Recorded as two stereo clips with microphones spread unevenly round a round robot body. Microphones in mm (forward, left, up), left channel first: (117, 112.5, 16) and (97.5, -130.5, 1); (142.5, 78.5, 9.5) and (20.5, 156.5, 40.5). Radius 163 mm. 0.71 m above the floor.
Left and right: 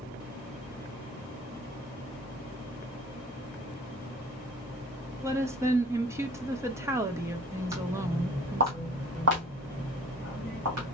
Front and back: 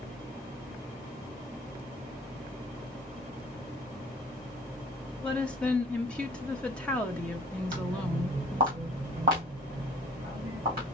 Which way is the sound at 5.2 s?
50° right.